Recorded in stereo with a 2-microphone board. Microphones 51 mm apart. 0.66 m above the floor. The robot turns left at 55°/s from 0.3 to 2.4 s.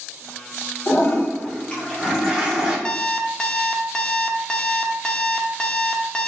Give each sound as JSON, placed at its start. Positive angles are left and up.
{"t": 0.9, "sound": "a toilet flushing", "azimuth_deg": 75, "distance_m": 1.4}
{"t": 2.9, "sound": "an alarm clock", "side_deg": 15, "distance_m": 0.5}